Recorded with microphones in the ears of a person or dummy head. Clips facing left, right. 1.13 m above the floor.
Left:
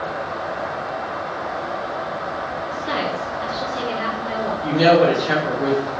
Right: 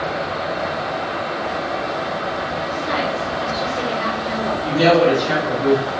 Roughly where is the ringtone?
I don't hear a ringtone.